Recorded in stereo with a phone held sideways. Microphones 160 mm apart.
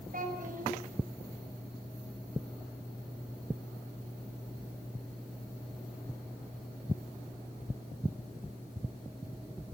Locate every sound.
0.1 s a child speaking: 55° right (ahead or behind), 5 m